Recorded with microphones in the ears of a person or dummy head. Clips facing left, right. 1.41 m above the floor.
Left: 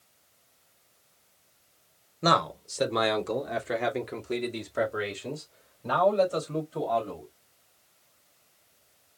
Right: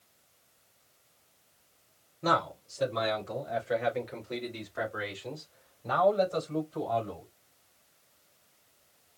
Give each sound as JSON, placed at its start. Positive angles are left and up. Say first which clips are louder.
{"t": 2.2, "sound": "a man speaking", "louder": "left 4 dB", "side_deg": 75, "distance_m": 1.2}